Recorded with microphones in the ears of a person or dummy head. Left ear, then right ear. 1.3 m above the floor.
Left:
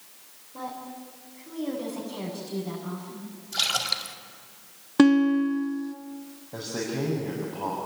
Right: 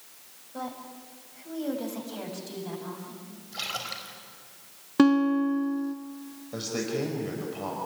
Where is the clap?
I don't hear a clap.